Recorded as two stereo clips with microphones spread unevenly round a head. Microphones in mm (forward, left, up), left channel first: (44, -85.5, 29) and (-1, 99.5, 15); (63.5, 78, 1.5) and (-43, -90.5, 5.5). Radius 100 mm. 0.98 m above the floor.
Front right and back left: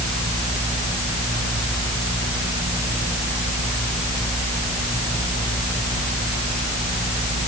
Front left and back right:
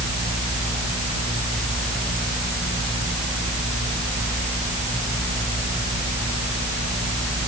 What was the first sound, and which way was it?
Only background noise.